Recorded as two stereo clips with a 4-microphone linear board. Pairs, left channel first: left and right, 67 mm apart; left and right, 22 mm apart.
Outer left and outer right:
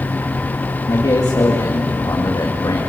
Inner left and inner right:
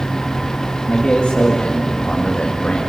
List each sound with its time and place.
0.9 s a man speaking: 70° left (ahead or behind), 2.5 m